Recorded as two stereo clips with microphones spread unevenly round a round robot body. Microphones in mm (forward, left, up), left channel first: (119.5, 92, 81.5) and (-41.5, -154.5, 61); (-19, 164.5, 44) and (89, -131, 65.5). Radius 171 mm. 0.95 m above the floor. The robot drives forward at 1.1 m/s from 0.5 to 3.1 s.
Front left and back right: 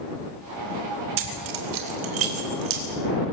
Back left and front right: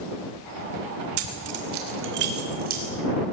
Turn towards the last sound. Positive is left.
turn(degrees=-140)